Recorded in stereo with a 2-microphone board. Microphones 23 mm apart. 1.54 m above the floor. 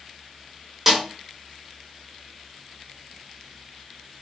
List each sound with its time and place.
0.9 s a snare drum: 15° right (ahead or behind), 1.3 m